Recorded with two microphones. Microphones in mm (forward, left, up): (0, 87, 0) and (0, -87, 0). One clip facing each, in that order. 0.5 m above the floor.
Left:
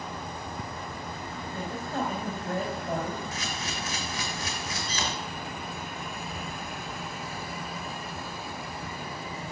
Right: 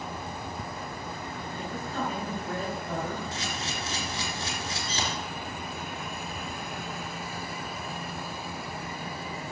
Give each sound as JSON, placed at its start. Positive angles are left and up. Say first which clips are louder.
{"t": 1.5, "sound": "a woman speaking", "louder": "left 2 dB", "side_deg": 45, "distance_m": 3.5}
{"t": 3.3, "sound": "a camera shutter", "louder": "even", "side_deg": -30, "distance_m": 3.0}